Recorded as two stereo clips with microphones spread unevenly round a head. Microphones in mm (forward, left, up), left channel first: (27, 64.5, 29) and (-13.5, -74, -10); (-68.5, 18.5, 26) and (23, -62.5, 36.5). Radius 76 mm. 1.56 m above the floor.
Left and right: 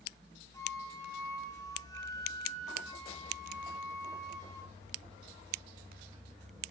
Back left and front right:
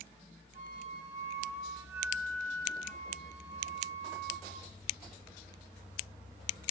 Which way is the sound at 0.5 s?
5° left.